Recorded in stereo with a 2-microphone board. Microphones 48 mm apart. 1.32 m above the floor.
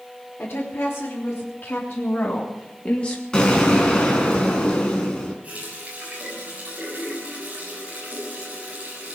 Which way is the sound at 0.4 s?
50° left (ahead or behind).